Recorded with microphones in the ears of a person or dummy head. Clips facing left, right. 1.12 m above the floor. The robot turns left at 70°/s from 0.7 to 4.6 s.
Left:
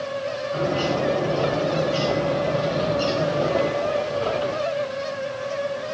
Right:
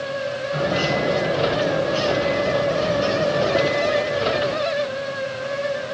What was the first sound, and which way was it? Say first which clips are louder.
A bird: right 1 dB; 145° right.